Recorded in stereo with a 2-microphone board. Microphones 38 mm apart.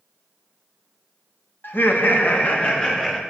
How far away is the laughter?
About 1.5 m.